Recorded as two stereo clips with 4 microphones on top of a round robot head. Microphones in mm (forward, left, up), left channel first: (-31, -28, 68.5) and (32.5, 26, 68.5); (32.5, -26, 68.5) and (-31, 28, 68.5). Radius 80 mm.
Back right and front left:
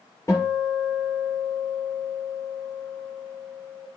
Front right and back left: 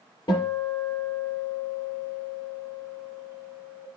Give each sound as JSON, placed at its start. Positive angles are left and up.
{"t": 0.3, "sound": "a guitar", "azimuth_deg": -80, "distance_m": 5.0}